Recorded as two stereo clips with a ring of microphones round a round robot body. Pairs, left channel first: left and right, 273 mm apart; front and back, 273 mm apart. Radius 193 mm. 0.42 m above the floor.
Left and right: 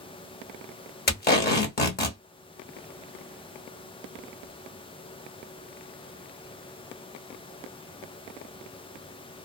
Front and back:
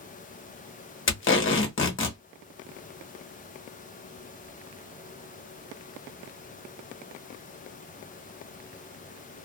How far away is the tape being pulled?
About 1.2 m.